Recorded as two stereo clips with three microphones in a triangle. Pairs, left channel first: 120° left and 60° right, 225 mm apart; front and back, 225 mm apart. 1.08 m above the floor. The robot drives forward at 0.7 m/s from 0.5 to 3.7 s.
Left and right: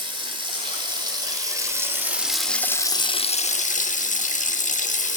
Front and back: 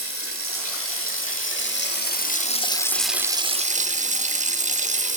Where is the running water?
10° left, 1.9 m; by 5.2 s 150° left, 0.8 m.